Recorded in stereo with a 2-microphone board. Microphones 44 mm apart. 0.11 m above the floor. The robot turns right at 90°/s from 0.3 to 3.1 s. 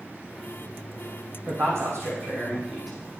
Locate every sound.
1.5 s a man speaking: 130° right, 4 m; by 3.0 s 10° left, 4 m